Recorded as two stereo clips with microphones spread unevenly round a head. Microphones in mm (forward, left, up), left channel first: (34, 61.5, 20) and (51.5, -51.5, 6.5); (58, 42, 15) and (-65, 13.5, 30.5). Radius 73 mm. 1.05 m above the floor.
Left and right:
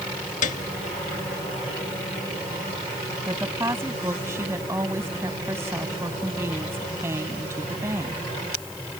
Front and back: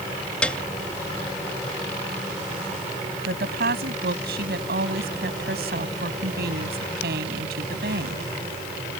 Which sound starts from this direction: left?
A piano, at 0.4 s.